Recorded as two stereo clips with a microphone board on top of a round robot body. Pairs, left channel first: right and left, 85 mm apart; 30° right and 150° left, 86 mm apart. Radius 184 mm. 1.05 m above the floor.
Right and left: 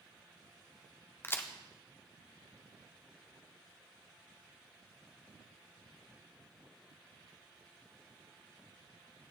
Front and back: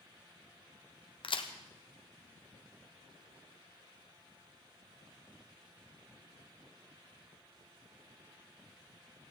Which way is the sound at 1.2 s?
25° right.